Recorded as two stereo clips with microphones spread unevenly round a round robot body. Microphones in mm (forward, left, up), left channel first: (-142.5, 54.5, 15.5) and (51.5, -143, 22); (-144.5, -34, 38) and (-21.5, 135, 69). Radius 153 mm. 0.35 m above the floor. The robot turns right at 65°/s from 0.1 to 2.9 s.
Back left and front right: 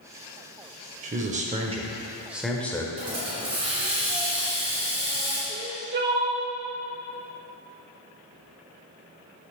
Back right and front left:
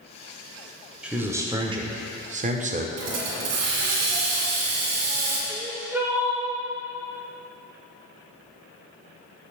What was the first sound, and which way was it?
A man speaking, 45° right.